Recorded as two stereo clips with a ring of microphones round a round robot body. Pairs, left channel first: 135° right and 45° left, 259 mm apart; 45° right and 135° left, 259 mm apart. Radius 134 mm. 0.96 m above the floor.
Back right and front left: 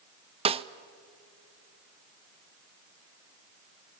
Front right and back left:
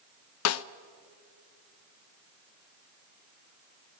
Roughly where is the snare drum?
Ahead right.